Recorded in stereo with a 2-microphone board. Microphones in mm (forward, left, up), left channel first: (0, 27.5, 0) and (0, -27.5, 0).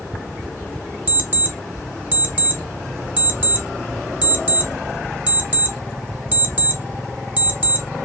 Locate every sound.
1.1 s an alarm clock: 30° right (ahead or behind), 0.7 m